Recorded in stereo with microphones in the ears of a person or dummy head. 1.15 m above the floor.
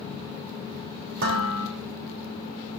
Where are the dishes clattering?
75° right (ahead or behind), 3 m.